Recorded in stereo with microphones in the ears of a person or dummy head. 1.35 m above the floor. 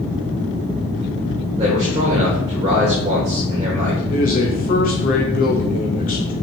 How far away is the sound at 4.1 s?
About 1.8 m.